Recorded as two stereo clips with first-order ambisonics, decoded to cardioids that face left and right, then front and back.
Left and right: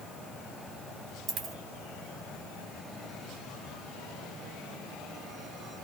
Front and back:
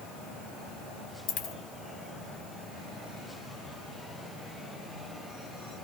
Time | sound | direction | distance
1.3 | a dropped coin | 30° right | 0.9 m